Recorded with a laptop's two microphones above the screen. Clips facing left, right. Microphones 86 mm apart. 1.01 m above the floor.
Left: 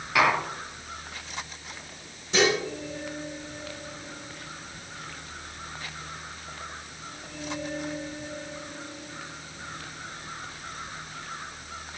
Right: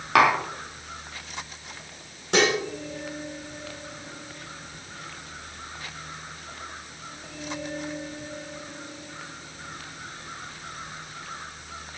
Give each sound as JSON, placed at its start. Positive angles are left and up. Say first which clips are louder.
{"t": 0.1, "sound": "tapping", "louder": "right 4 dB", "side_deg": -75, "distance_m": 3.5}
{"t": 2.3, "sound": "dishes clattering", "louder": "right 1 dB", "side_deg": -70, "distance_m": 2.5}